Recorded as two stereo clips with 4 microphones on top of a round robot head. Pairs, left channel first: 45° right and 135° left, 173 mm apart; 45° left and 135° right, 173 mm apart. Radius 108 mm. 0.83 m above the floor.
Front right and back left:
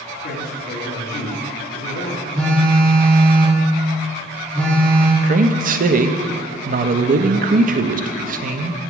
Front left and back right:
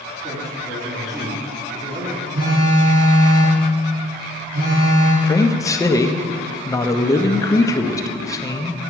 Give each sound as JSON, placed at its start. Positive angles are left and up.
{"t": 0.2, "sound": "a man speaking", "azimuth_deg": -65, "distance_m": 2.0}
{"t": 2.3, "sound": "a phone buzzing", "azimuth_deg": -130, "distance_m": 3.0}
{"t": 5.2, "sound": "a man speaking", "azimuth_deg": 115, "distance_m": 0.6}